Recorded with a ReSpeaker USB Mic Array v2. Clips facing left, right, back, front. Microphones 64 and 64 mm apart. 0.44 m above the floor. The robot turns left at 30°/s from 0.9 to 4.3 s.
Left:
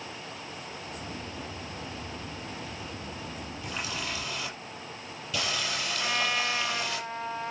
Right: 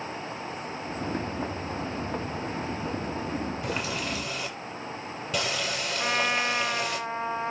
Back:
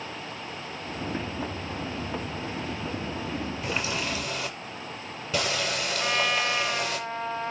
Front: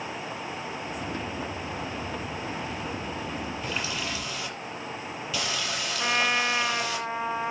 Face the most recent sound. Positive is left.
turn(degrees=-60)